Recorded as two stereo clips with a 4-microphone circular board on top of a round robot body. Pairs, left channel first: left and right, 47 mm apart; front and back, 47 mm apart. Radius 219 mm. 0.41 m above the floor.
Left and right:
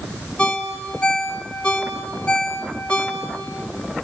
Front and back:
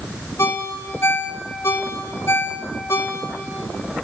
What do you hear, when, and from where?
0.4 s a ringtone: 20° left, 2.5 m